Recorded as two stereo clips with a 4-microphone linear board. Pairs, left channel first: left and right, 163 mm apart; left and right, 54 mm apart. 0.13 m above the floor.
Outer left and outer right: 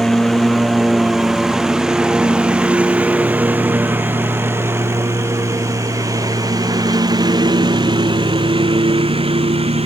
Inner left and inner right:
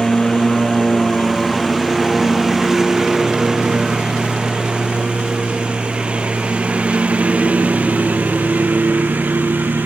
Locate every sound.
0.0 s a lawn mower: centre (ahead or behind); by 9.9 s 35° right (ahead or behind)